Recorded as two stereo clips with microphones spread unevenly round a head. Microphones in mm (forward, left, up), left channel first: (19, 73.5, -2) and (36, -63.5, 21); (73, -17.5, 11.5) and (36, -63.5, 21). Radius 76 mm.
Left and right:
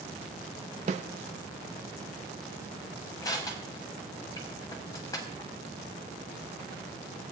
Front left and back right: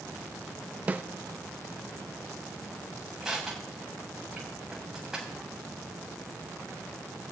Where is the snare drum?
80° right, 0.5 m.